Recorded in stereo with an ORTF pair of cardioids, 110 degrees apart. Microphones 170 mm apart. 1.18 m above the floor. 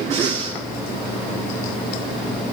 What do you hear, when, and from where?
0.1 s breathing: 40° right, 7.5 m